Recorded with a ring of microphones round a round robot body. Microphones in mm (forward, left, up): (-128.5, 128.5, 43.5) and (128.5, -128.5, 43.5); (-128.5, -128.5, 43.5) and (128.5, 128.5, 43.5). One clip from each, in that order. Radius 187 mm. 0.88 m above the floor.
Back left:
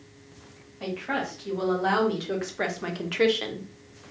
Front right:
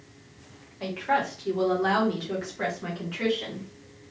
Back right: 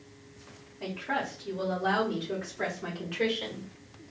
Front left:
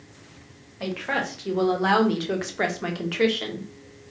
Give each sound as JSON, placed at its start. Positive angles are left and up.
{"t": 0.8, "sound": "a woman speaking", "azimuth_deg": 35, "distance_m": 1.4}